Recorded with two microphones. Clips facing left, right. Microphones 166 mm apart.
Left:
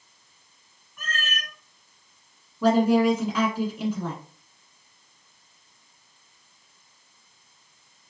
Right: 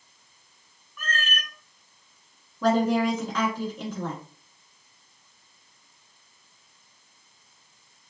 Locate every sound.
1.0 s a cat meowing: 40° left (ahead or behind), 1.8 m
2.6 s a woman speaking: 10° left (ahead or behind), 1.2 m